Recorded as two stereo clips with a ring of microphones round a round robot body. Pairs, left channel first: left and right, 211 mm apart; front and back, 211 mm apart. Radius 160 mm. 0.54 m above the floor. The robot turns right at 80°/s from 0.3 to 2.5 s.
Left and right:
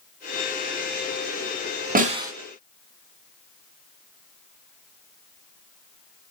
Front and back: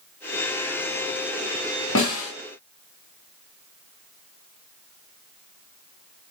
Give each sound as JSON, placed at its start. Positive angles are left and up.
{"t": 1.9, "sound": "a snare drum", "azimuth_deg": -40, "distance_m": 3.0}